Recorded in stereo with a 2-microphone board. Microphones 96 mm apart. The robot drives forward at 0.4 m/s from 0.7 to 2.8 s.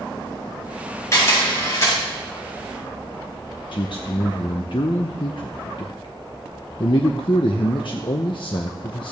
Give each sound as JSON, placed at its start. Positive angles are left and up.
{"t": 1.1, "sound": "a camera shutter", "side_deg": 30, "distance_m": 5.5}
{"t": 3.7, "sound": "a man speaking", "side_deg": 60, "distance_m": 0.7}